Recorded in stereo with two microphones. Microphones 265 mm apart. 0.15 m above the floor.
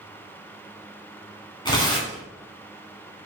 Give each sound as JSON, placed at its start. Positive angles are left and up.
{"t": 1.6, "sound": "tearing paper", "side_deg": 15, "distance_m": 1.4}